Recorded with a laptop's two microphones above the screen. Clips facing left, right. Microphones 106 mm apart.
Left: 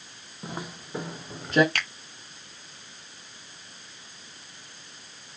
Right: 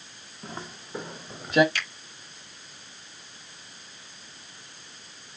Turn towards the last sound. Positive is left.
turn(degrees=55)  # may be behind; listen again after turning